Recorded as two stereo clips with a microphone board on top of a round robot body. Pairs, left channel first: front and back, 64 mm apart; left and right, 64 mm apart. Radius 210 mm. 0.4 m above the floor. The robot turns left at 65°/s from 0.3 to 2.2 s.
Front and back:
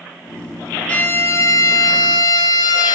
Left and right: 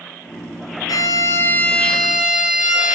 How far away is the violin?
About 2.5 m.